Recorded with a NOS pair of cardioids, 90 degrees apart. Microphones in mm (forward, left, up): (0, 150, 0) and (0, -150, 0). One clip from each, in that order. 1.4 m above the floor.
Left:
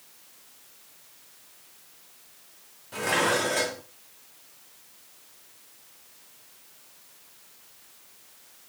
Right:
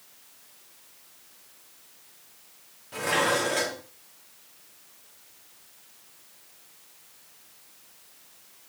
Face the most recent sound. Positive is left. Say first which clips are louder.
# even
turn(degrees=0)